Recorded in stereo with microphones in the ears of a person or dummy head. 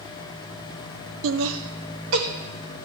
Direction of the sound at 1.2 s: 80° right.